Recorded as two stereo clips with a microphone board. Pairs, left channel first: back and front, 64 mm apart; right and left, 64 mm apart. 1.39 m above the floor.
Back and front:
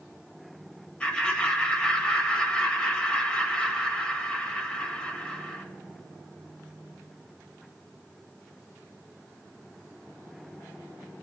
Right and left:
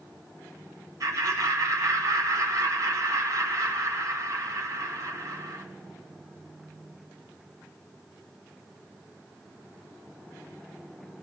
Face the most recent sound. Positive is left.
turn(degrees=105)